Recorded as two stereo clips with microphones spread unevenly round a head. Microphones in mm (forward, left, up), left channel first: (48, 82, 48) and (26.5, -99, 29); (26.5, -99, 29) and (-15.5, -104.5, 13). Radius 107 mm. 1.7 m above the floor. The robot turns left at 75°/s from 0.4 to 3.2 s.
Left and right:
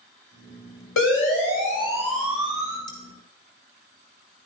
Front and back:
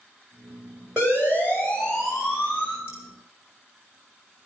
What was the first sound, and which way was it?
A siren, 100° left.